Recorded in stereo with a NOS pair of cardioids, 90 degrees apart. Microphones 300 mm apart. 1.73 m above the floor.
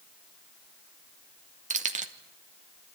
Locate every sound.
1.7 s keys jangling: 25° right, 2.5 m